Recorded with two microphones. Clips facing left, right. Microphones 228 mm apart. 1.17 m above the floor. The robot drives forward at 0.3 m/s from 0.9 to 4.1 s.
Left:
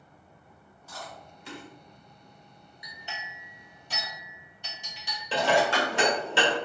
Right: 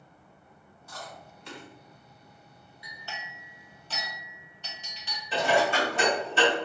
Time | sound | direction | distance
0.9 | chewing | 5° left (ahead or behind) | 1.8 m
2.8 | a clink | 20° left (ahead or behind) | 0.6 m
5.3 | dishes clattering | 75° left (ahead or behind) | 1.1 m